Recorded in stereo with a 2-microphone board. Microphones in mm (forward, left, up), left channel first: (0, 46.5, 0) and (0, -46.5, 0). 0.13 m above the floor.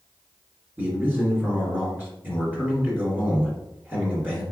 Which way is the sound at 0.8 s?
20° right (ahead or behind).